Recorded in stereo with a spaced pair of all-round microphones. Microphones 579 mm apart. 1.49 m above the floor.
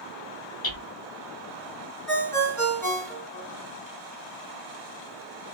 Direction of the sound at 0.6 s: 40° left (ahead or behind).